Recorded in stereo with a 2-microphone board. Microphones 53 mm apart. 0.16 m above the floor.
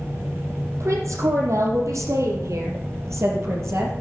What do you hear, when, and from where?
0.8 s a woman speaking: 75° right (ahead or behind), 5.5 m; by 3.9 s 55° right (ahead or behind), 4.5 m